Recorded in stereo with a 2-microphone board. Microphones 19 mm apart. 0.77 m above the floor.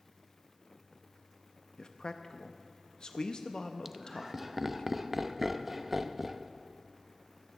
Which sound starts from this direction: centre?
Laughter, at 3.9 s.